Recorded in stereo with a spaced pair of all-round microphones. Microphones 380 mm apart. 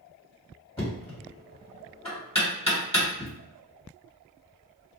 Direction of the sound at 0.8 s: 15° left (ahead or behind).